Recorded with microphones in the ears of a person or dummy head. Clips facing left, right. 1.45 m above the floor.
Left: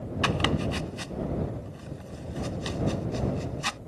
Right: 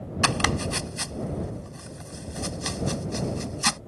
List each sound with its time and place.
0.2 s chopping: 60° right (ahead or behind)